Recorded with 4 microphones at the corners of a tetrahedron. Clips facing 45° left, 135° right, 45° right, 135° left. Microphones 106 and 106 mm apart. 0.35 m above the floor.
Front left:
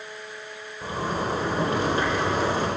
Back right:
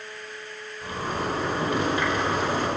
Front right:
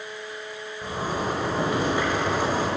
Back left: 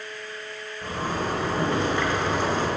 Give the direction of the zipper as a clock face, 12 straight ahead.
11 o'clock.